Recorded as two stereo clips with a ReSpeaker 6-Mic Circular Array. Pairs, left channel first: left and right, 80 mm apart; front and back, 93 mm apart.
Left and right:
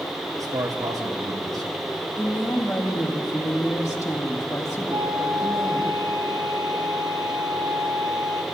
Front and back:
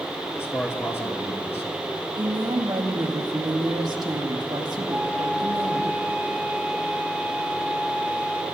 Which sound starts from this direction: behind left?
A woman speaking, at 2.2 s.